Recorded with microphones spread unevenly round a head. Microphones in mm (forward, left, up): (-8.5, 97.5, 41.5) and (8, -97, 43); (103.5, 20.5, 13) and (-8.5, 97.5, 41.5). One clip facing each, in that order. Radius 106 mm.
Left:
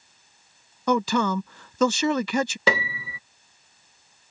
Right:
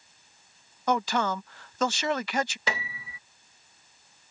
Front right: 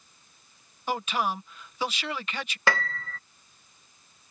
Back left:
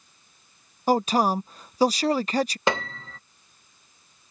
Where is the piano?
90° left.